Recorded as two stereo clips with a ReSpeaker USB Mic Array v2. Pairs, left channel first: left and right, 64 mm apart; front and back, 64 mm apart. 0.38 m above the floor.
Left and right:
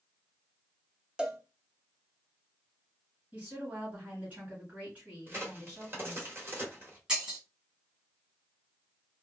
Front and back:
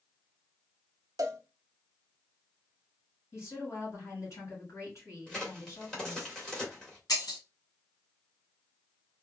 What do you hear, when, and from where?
1.2 s a cowbell: 170° right, 0.7 m
3.3 s a woman speaking: 30° right, 2.5 m
5.3 s a crack: 70° right, 1.4 m
7.1 s breaking glass: 15° right, 1.5 m